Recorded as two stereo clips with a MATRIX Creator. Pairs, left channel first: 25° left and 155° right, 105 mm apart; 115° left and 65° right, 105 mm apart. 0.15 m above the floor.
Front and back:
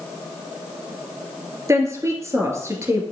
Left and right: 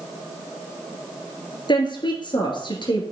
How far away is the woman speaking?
About 2.5 m.